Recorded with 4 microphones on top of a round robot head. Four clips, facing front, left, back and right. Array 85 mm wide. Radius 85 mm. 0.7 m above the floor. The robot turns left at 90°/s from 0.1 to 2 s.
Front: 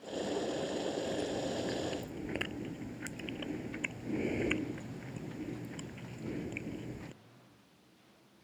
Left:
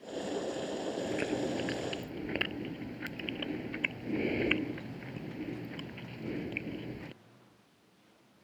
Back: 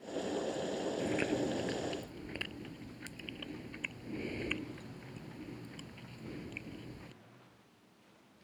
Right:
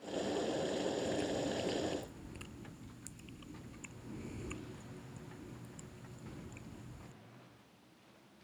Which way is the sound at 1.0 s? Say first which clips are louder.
Left 3 dB, back 2 dB; 160° left.